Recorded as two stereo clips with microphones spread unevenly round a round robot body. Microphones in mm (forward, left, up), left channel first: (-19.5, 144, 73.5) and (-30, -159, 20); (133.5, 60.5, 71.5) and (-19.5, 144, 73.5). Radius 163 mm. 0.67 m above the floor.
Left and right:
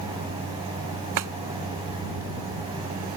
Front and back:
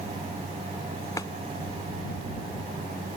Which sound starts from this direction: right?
A clap, at 1.2 s.